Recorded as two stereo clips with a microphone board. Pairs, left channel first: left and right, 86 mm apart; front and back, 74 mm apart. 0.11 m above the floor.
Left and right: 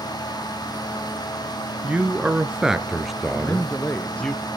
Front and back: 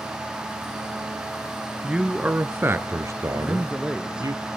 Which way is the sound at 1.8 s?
120° right.